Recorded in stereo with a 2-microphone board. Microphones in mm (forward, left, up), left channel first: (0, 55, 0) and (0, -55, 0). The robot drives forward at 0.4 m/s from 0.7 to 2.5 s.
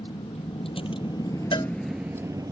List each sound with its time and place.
0.0 s a vehicle: 75° left (ahead or behind); by 2.5 s 40° right (ahead or behind)
1.5 s a cowbell: 55° left (ahead or behind); by 1.7 s 50° left (ahead or behind)